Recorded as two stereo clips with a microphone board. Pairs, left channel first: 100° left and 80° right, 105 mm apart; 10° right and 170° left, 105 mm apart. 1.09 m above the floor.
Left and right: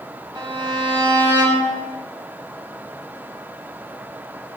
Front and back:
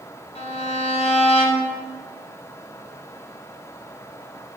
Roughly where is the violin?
Ahead right.